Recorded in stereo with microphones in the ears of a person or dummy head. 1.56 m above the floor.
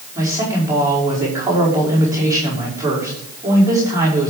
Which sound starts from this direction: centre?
A man speaking, at 0.1 s.